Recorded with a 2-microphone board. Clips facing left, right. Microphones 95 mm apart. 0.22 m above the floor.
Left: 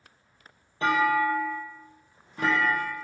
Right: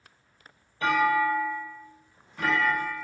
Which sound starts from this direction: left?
A clunk, at 0.8 s.